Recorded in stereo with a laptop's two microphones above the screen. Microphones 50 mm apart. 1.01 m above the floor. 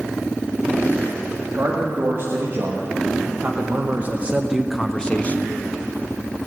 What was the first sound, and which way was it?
A man speaking, 55° right (ahead or behind).